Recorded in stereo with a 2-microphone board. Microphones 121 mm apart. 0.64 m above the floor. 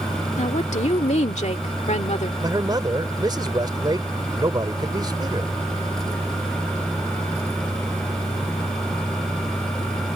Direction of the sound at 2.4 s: 35° right (ahead or behind).